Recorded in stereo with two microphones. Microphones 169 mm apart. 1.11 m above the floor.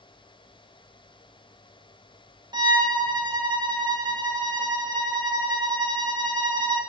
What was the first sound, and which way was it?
A violin, 25° right (ahead or behind).